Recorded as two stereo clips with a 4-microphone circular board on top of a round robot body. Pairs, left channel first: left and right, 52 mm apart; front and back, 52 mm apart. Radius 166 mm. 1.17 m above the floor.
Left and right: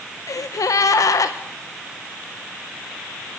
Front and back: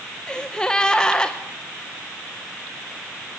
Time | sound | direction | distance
0.3 | a gasp | 80° left | 0.8 m